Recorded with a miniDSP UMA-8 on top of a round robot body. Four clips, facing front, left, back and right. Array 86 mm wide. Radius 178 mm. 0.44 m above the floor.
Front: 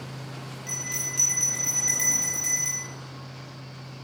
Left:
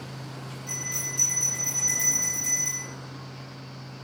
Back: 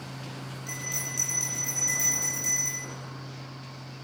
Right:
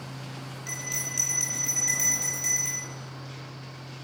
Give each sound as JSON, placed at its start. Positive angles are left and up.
{"t": 0.7, "sound": "a bell", "azimuth_deg": -45, "distance_m": 1.1}